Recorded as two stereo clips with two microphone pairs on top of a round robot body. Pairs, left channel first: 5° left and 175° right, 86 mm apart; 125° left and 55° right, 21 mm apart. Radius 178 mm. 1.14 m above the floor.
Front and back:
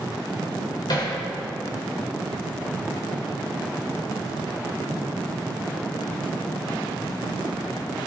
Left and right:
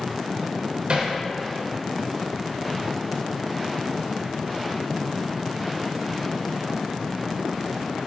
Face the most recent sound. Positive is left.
turn(degrees=-25)